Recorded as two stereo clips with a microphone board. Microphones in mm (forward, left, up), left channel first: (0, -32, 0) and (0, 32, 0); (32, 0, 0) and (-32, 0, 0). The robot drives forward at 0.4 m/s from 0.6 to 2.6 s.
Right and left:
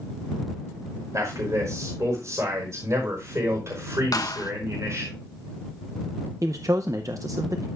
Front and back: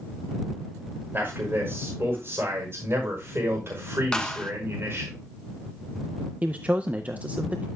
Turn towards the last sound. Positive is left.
turn(degrees=115)